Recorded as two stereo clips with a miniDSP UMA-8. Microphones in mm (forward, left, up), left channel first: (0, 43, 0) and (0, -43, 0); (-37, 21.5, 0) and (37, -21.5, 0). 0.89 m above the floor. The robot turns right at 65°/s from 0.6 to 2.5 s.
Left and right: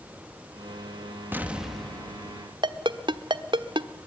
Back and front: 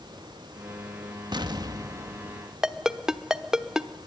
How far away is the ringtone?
About 1.1 m.